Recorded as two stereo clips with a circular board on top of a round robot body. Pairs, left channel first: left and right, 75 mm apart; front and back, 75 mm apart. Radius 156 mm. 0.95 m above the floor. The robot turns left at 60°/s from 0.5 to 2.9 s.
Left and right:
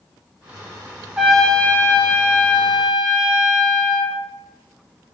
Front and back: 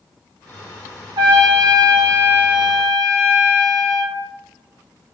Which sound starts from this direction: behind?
A trumpet, at 1.2 s.